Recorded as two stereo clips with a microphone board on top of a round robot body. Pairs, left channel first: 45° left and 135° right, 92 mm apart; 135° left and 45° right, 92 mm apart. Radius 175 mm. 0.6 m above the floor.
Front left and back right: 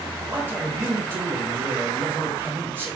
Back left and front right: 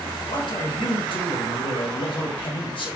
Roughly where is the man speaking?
Behind.